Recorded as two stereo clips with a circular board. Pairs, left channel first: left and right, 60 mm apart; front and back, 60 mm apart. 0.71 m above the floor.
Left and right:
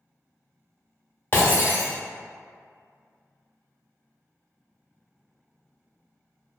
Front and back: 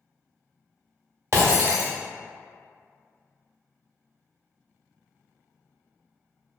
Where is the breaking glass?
145° left, 0.8 m.